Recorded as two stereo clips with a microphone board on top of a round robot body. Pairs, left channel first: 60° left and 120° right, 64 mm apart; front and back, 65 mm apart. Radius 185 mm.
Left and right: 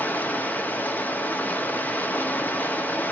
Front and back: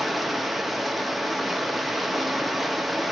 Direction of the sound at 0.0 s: 90° left.